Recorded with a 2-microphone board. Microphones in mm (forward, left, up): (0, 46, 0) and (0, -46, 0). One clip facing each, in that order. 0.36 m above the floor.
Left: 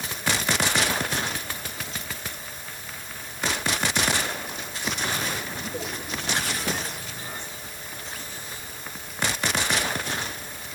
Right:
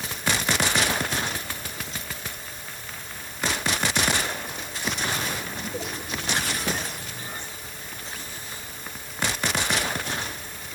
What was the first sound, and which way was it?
Only background noise.